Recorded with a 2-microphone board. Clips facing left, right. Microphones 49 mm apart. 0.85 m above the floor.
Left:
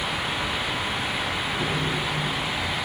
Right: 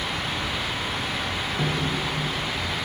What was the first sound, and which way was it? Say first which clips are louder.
A snare drum: right 2 dB; 60° right (ahead or behind).